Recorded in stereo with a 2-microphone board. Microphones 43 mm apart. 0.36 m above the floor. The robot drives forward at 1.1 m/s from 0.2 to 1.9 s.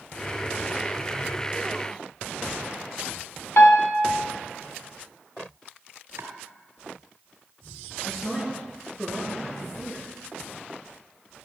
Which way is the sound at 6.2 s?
85° right.